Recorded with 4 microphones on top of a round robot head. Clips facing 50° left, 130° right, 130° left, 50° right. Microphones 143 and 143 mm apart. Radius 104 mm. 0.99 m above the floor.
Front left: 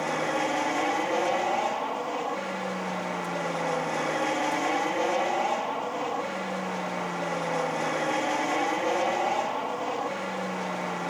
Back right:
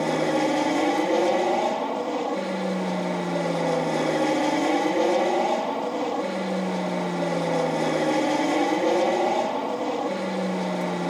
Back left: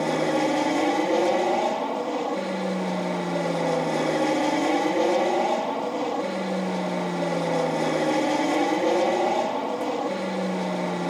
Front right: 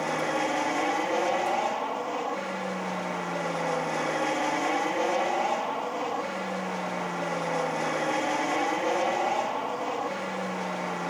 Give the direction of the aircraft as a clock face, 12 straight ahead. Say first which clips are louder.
Back right 6 dB, back left 6 dB; 6 o'clock.